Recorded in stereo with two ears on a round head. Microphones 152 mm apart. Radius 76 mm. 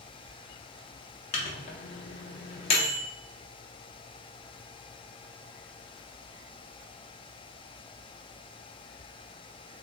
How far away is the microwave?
About 0.5 m.